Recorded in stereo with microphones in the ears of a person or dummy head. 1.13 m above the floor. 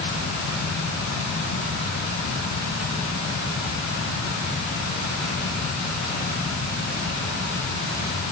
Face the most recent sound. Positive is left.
No sound to turn to.